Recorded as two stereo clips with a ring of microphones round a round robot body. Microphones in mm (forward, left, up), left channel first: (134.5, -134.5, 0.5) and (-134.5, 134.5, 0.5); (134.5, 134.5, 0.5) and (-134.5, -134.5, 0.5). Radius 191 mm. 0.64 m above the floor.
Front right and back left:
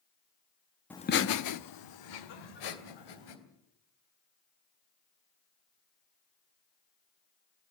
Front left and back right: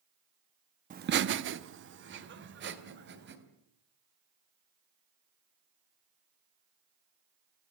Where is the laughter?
125° right, 0.7 m; by 3.4 s 70° right, 3.5 m.